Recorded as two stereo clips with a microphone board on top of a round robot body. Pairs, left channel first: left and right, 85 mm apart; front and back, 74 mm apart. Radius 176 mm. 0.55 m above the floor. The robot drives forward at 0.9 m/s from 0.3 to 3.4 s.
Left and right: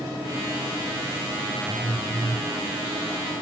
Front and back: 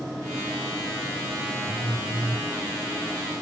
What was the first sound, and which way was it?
A phone buzzing, 175° left.